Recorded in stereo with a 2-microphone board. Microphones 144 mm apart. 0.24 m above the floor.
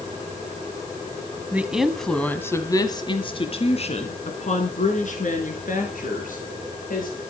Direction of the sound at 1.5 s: 10° right (ahead or behind).